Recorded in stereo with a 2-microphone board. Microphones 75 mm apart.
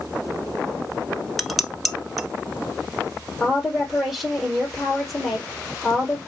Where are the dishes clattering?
Centre (ahead or behind), 0.8 m.